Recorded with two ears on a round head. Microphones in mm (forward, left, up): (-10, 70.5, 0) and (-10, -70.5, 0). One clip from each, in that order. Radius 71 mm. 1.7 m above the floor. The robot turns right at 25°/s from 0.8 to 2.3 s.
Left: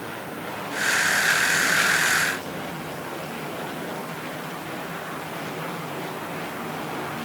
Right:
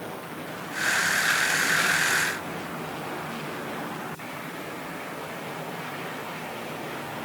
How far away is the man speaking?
I don't hear a man speaking.